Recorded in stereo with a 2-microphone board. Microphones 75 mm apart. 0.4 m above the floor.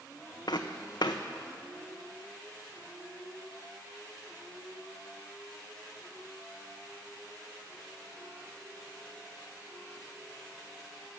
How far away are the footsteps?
About 1.1 m.